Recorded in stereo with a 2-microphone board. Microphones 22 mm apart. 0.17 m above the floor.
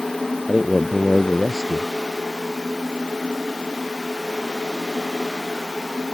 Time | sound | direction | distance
0.5 | a man speaking | 30° right (ahead or behind) | ?